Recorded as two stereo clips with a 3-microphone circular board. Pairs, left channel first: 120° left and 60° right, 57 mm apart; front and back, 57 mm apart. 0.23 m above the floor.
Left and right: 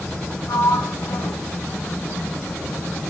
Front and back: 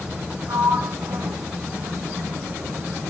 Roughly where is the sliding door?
Behind left.